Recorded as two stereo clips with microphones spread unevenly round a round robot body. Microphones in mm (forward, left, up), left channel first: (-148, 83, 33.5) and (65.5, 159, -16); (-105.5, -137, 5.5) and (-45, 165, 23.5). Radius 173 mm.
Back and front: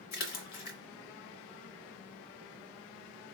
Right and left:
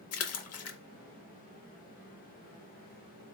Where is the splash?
145° right, 0.6 m.